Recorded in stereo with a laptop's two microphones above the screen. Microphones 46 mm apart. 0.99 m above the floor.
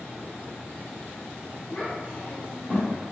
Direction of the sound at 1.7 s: 25° left (ahead or behind).